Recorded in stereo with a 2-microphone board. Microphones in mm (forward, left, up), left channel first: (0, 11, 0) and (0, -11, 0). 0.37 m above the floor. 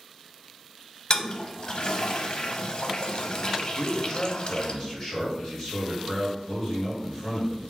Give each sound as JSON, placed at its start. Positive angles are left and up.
{"t": 1.1, "sound": "a toilet flushing", "side_deg": 45, "distance_m": 0.5}
{"t": 3.8, "sound": "a man speaking", "side_deg": 30, "distance_m": 1.9}